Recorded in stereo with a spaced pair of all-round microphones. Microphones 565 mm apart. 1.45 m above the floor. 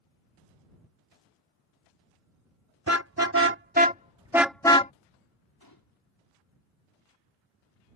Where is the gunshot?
40° left (ahead or behind).